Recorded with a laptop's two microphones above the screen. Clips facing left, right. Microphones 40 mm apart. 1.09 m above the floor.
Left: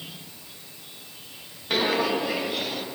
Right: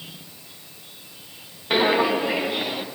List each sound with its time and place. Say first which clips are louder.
1.7 s footsteps: right 4 dB; 20° right (ahead or behind), 1.1 m